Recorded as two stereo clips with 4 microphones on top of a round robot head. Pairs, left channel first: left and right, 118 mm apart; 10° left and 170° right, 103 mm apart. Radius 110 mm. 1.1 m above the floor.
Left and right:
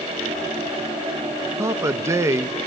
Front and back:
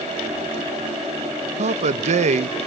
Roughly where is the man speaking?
Behind.